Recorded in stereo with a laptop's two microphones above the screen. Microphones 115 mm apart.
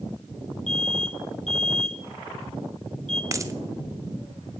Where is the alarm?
80° left, 1.6 m.